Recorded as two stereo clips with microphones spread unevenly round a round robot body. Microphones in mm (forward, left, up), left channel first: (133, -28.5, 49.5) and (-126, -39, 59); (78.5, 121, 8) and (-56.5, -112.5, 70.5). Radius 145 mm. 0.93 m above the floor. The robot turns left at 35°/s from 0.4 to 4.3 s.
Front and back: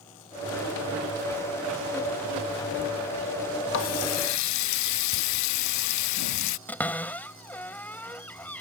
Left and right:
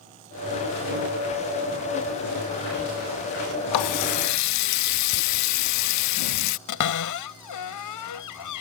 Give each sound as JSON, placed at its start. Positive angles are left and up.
{"t": 3.7, "sound": "a running tap", "azimuth_deg": 50}
{"t": 6.7, "sound": "a cupboard door", "azimuth_deg": 85}